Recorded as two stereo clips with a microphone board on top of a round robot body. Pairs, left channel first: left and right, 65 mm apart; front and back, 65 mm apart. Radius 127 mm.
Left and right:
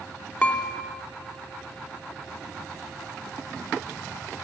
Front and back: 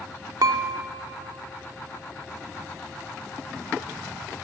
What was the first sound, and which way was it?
Dishes clattering, 160° left.